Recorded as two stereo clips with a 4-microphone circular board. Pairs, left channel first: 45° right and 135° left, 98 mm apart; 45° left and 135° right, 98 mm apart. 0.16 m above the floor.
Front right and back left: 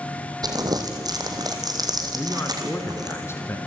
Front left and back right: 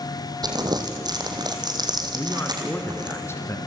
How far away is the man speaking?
About 2 m.